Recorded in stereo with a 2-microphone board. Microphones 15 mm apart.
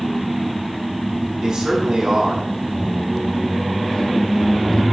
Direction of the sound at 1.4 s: 40° right (ahead or behind).